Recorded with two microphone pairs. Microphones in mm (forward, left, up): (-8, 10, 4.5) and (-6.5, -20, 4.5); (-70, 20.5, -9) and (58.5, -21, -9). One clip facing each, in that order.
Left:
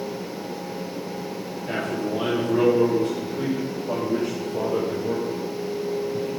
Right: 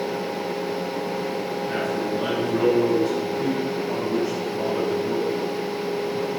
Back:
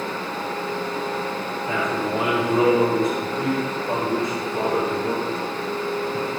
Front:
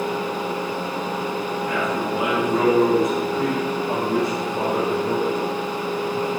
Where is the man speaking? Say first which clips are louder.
Left 1 dB, back 2 dB; 90° left, 3.5 m; by 6.3 s 80° left, 6 m.